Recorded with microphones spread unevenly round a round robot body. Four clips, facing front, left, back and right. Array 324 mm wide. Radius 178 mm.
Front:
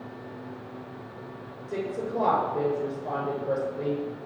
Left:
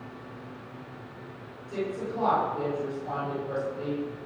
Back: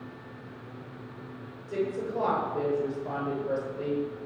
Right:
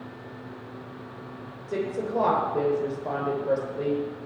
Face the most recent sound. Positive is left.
turn(degrees=-55)